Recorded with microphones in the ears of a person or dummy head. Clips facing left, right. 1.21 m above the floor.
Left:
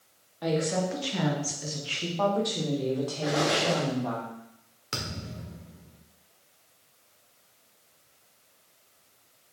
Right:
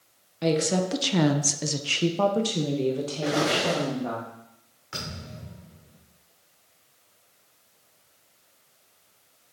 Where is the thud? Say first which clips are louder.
Left 1 dB; 40° left (ahead or behind), 1.4 m.